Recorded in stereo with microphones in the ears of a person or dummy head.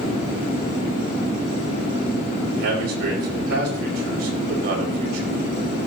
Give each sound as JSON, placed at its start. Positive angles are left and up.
{"t": 2.5, "sound": "a man speaking", "side_deg": -60, "distance_m": 6.0}